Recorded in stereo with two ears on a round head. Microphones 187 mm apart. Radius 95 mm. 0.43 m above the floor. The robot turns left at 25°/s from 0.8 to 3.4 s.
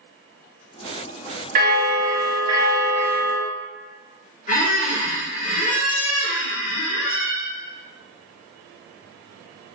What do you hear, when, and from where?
1.6 s a bell: 135° right, 0.8 m; by 3.4 s straight behind, 0.8 m
4.5 s a squeak: 40° left (ahead or behind), 0.6 m